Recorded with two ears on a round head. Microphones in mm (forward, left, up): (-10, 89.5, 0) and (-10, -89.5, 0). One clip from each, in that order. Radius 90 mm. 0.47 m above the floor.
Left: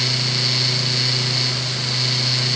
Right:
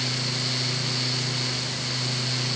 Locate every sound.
Only background noise.